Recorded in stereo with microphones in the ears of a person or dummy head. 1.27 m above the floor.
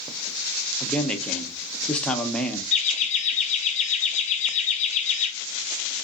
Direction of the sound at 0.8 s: 5° left (ahead or behind).